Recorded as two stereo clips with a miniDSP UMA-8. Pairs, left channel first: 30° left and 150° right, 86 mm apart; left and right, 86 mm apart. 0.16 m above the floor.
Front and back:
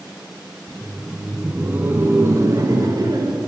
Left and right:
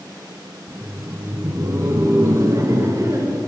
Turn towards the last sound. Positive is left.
turn(degrees=-135)